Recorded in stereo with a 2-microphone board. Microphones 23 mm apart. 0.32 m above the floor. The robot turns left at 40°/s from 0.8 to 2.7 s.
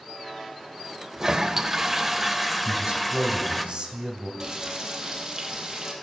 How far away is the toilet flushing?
About 0.7 m.